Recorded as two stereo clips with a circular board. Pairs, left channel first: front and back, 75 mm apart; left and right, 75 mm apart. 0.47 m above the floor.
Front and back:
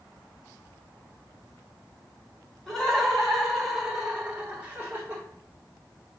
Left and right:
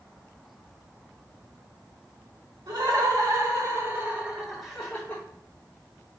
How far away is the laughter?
About 1.3 m.